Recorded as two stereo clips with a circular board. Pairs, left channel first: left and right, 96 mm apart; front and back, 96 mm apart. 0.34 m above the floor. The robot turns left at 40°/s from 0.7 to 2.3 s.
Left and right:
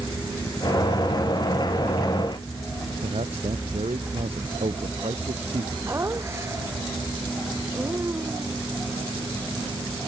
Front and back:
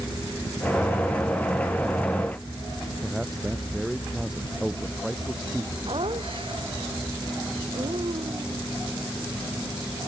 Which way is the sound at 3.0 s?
90° right.